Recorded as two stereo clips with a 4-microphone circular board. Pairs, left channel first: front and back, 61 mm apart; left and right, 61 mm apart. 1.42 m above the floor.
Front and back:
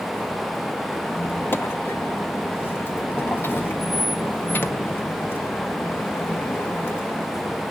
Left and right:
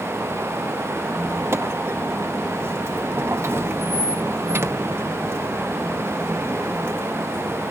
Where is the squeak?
45° right, 0.7 m.